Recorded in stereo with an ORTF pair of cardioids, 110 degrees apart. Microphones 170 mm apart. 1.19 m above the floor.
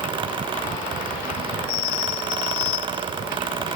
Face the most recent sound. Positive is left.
turn(degrees=-30)